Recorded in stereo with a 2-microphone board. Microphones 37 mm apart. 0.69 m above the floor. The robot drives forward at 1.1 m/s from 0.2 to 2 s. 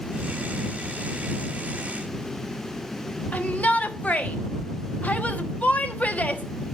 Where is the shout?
40° left (ahead or behind), 1.4 m.